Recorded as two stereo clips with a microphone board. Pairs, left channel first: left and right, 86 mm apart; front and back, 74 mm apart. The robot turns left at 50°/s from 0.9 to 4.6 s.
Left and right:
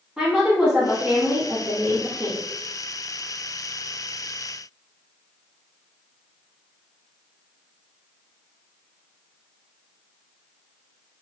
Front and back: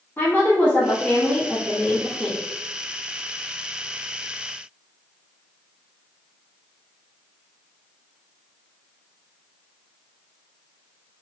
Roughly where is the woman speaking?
Ahead.